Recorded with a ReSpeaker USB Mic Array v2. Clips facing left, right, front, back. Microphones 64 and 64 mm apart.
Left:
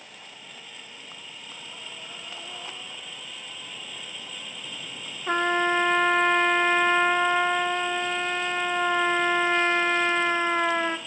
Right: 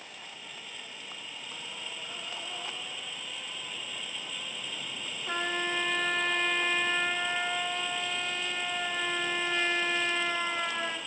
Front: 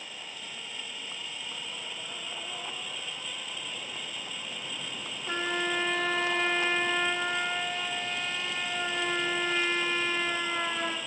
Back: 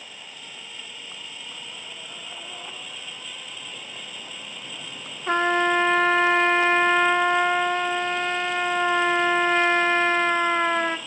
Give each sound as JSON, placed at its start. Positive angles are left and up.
{"t": 5.3, "sound": "a trumpet", "azimuth_deg": 140, "distance_m": 0.7}